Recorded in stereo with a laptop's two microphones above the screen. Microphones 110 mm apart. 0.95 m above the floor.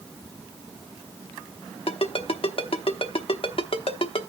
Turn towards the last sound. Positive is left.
turn(degrees=55)  # may be behind; listen again after turning